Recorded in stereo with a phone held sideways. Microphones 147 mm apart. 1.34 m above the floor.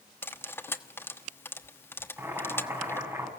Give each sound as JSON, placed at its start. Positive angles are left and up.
{"t": 0.2, "sound": "cutlery clinking", "side_deg": 15, "distance_m": 1.3}
{"t": 2.2, "sound": "boiling", "side_deg": -20, "distance_m": 7.5}